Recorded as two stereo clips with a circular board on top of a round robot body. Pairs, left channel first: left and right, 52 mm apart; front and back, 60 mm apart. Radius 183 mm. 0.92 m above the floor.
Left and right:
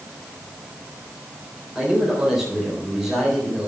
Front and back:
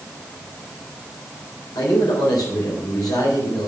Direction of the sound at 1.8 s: 5° right.